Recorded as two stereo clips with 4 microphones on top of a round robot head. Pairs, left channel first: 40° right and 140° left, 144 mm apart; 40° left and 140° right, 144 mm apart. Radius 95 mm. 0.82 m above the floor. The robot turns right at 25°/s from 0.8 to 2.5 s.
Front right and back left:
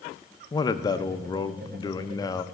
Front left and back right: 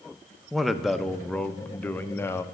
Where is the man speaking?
50° right, 0.6 m; by 2.4 s 10° right, 0.6 m.